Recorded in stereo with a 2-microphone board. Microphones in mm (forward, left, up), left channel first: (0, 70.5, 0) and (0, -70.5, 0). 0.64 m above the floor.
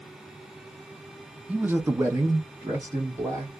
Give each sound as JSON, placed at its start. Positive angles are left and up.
{"t": 1.5, "sound": "a man speaking", "side_deg": -10, "distance_m": 0.6}